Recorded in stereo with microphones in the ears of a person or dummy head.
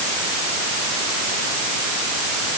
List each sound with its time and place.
Only background noise.